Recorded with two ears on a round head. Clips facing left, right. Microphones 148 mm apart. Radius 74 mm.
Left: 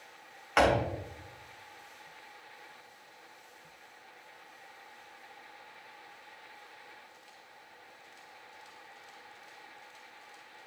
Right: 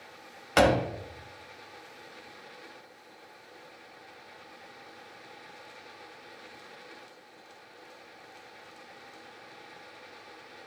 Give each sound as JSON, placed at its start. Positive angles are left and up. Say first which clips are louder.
{"t": 0.6, "sound": "a door slam", "louder": "right 3 dB", "side_deg": -40, "distance_m": 0.7}